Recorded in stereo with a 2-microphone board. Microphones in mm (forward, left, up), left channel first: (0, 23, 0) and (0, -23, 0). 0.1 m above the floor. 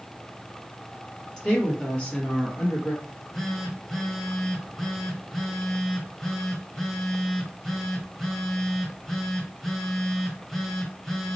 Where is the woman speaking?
15° left (ahead or behind), 2 m; by 2.9 s 40° left (ahead or behind), 1.9 m.